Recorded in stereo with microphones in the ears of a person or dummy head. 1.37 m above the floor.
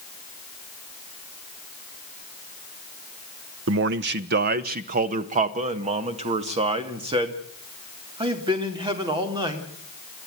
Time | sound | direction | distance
3.7 | a man speaking | 65° right (ahead or behind) | 0.9 m